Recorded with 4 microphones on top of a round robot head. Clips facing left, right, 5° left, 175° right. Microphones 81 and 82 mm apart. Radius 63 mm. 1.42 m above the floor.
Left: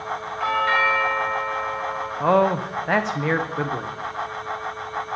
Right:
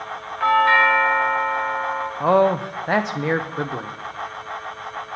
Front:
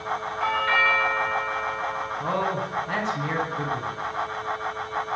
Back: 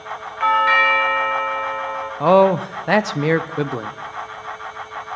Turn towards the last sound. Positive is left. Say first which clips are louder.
# right 2 dB, back 15 dB
turn(degrees=-175)